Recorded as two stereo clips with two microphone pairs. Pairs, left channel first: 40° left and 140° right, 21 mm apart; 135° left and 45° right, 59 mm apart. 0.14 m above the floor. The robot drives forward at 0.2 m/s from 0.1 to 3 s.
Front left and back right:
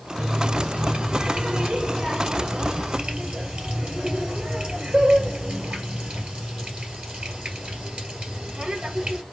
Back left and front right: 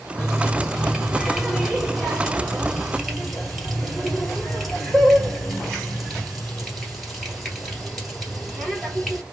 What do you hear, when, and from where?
0.2 s a running tap: 120° right, 1.7 m; by 9.2 s 135° right, 2 m